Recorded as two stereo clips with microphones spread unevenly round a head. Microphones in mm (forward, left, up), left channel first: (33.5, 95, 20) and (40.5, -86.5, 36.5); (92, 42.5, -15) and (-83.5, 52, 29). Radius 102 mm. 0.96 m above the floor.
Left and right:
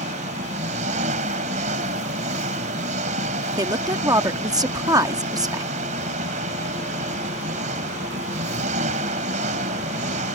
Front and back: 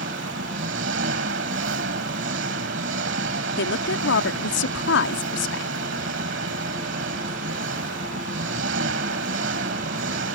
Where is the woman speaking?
15° right.